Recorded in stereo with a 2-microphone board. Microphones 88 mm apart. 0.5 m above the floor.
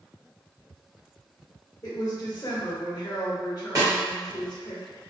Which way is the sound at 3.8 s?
40° right (ahead or behind).